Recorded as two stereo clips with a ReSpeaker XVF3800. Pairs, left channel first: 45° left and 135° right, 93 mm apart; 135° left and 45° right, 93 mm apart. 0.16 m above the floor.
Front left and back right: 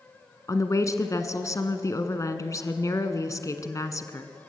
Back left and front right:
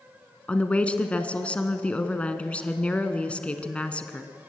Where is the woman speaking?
65° left, 1.4 m.